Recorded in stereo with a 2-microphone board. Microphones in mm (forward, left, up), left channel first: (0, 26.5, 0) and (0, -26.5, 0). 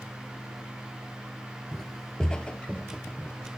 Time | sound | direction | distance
1.7 | footsteps | 5° left (ahead or behind) | 0.9 m